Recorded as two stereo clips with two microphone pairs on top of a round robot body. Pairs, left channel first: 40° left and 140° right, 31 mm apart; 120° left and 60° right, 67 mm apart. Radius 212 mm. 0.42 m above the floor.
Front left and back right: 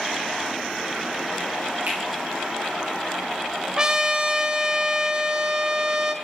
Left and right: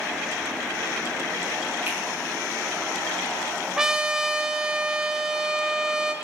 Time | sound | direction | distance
1.9 | a finger snap | 120° right | 2.5 m
3.8 | a trumpet | 125° right | 0.9 m